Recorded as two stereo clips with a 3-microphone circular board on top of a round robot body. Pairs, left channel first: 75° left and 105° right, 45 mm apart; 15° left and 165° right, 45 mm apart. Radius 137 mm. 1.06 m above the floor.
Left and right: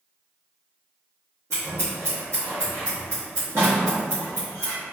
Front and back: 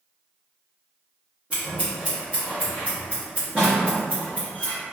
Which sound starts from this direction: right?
Scissors, at 1.5 s.